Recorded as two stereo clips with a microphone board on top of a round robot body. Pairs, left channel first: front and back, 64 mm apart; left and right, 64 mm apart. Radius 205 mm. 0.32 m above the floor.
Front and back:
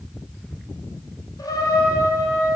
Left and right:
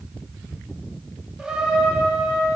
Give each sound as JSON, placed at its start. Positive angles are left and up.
{"t": 1.4, "sound": "a trumpet", "azimuth_deg": -10, "distance_m": 1.9}